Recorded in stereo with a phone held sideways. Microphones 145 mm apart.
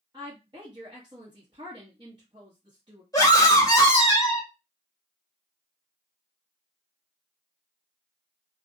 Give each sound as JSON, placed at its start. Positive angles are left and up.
{"t": 0.1, "sound": "a woman speaking", "side_deg": -35, "distance_m": 1.1}
{"t": 3.1, "sound": "a scream", "side_deg": 25, "distance_m": 1.4}